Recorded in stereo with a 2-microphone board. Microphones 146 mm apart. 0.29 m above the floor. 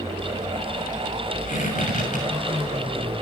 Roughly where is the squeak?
Left.